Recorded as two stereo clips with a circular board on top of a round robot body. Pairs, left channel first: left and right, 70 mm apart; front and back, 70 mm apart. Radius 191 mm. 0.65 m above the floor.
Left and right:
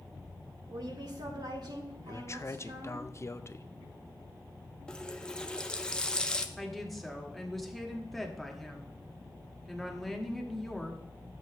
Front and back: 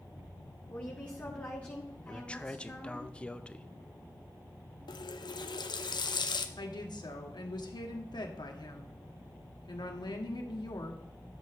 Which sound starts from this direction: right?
A woman speaking, at 0.7 s.